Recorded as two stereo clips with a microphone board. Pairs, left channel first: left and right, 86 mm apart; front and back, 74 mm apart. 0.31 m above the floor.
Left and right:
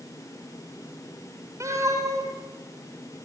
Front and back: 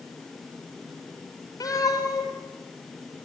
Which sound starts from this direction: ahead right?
A cat meowing, at 1.6 s.